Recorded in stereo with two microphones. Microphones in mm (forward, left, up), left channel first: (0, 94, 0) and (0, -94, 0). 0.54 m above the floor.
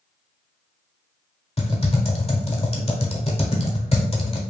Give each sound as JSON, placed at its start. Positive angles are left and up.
{"t": 1.6, "sound": "typing on a keyboard", "side_deg": 35, "distance_m": 1.0}